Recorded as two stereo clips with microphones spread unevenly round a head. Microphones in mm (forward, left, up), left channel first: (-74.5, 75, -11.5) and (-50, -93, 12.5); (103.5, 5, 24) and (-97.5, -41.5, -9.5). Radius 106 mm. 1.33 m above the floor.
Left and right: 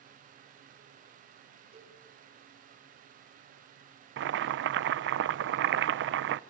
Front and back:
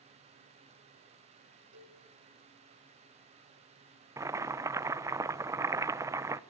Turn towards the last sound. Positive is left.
turn(degrees=-90)